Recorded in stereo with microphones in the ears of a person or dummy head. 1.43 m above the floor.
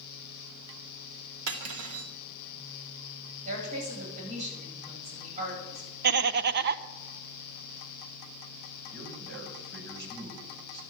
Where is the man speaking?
60° right (ahead or behind), 6 m.